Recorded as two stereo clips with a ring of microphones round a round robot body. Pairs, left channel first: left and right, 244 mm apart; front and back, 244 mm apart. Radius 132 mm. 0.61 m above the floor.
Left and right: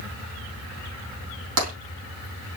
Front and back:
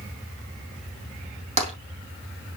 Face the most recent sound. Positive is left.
turn(degrees=-115)